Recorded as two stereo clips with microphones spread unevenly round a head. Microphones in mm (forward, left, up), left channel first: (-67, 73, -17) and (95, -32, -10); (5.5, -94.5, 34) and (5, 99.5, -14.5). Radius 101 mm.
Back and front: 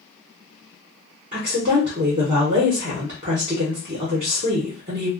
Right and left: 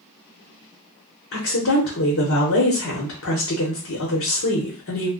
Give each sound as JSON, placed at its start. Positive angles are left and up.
{"t": 1.3, "sound": "a woman speaking", "azimuth_deg": -85, "distance_m": 1.1}